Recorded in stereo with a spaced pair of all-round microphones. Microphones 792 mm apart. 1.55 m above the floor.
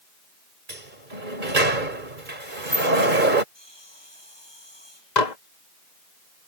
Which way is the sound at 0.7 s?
75° right (ahead or behind).